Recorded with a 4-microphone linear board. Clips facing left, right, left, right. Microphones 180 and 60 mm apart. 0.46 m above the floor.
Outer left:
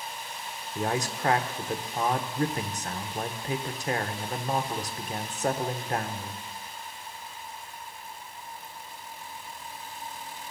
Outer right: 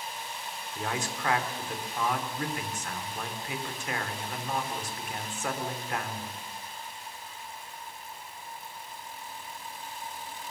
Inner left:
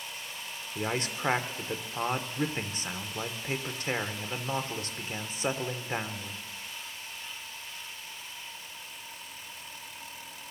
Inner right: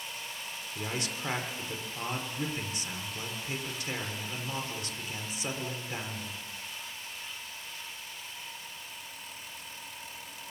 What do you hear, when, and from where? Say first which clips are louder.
0.8 s a man speaking: outer left 5 dB, inner left 4 dB; 40° left (ahead or behind), 1.2 m